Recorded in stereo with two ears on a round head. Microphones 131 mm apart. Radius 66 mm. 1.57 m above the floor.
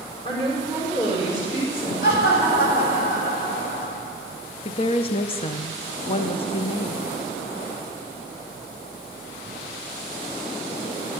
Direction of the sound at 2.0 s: 70° left (ahead or behind).